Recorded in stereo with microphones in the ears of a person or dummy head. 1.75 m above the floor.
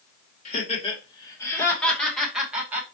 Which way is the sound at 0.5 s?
40° left (ahead or behind).